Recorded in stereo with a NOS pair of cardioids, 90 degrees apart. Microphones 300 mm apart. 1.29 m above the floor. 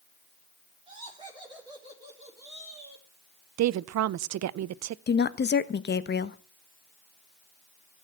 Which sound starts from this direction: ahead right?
A woman speaking, at 3.6 s.